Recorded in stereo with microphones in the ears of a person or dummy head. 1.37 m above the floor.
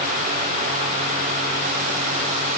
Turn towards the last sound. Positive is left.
No sound to turn to.